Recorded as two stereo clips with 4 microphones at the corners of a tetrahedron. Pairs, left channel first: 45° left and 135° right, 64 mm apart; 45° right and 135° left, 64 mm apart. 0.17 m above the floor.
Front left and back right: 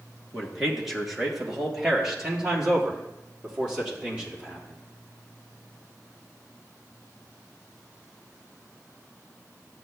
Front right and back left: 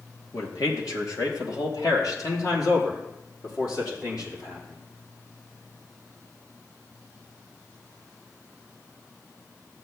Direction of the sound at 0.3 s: 45° right.